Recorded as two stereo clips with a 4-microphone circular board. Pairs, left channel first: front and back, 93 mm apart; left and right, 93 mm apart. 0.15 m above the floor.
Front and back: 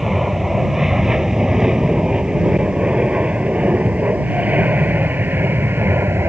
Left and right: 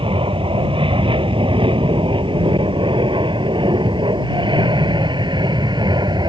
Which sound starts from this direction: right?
An aircraft, at 0.0 s.